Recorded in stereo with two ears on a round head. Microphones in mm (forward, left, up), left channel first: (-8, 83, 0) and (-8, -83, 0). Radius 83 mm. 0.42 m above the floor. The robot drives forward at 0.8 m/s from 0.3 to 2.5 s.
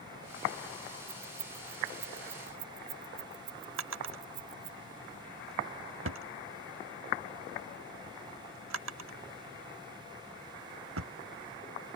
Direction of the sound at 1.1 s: 60° right (ahead or behind).